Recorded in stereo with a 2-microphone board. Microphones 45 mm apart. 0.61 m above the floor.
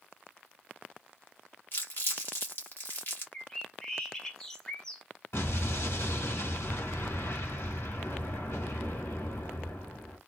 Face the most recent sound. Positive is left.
turn(degrees=70)  # may be behind; listen again after turning